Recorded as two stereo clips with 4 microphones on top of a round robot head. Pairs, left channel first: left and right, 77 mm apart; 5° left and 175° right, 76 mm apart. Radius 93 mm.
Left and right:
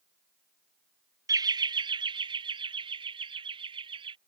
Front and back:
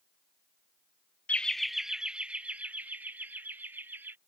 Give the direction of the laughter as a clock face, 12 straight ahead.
2 o'clock.